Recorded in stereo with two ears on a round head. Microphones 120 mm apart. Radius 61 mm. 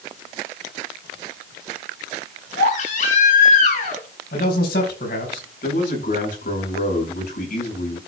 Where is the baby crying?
65° left (ahead or behind), 5 m.